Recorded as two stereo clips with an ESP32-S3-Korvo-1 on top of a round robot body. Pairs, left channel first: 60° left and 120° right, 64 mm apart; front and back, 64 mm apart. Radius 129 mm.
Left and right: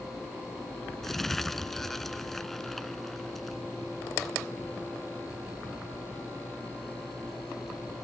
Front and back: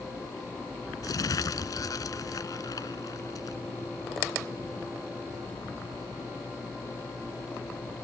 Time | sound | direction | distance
1.0 | crumpling | 25° right | ?